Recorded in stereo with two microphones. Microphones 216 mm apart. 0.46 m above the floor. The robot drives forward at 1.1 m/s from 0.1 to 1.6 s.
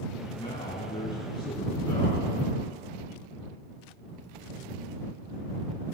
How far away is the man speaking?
About 4.5 m.